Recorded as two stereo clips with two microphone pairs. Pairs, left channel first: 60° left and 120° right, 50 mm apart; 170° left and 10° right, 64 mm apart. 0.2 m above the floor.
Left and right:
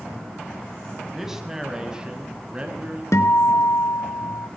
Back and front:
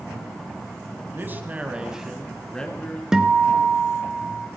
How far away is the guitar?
About 1.4 m.